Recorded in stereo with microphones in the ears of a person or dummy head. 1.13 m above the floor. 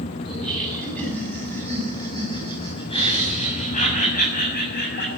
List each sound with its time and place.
0.2 s laughter: centre (ahead or behind), 8.5 m; by 5.1 s 55° left (ahead or behind), 7.5 m